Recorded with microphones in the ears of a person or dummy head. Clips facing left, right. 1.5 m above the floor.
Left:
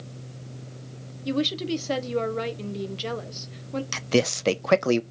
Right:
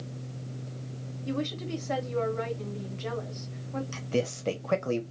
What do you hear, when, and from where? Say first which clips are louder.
1.2 s a woman speaking: left 6 dB; 50° left (ahead or behind), 0.9 m
3.9 s a man speaking: left 7 dB; 80° left, 0.6 m